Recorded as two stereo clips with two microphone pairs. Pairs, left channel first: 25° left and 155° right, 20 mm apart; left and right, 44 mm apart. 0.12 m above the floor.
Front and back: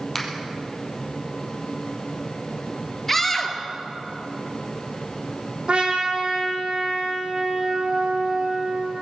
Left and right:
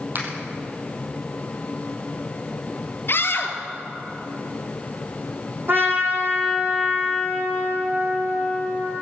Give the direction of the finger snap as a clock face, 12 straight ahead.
2 o'clock.